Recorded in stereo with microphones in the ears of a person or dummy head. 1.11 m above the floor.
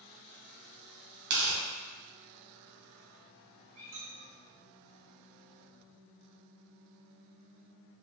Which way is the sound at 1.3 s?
55° right (ahead or behind).